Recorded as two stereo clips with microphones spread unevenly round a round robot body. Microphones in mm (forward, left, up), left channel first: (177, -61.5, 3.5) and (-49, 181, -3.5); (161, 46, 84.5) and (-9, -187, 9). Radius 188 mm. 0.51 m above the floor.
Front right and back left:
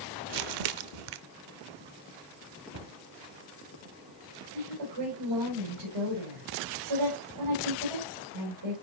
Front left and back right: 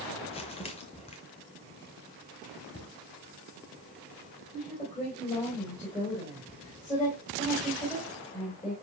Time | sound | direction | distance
0.3 | crumpling | 130° left | 0.6 m
2.7 | a cupboard door | 110° left | 1.2 m
4.5 | a woman speaking | 135° left | 3.5 m